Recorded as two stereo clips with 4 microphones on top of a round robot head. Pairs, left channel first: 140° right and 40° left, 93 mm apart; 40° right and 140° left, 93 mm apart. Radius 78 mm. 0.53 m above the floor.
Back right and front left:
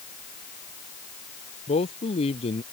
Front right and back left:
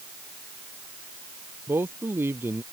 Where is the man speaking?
155° right.